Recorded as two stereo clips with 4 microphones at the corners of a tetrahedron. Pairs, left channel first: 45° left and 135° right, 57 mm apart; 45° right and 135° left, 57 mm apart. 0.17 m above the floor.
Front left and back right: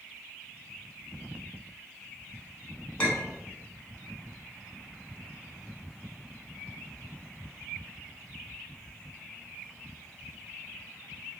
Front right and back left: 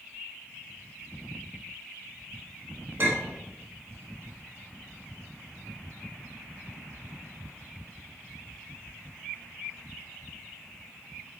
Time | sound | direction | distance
3.0 | a clink | 110° left | 1.3 m